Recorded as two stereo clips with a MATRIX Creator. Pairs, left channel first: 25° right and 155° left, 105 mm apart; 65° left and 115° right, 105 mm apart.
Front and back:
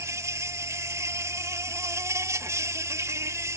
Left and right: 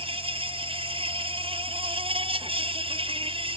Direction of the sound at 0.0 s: 140° right.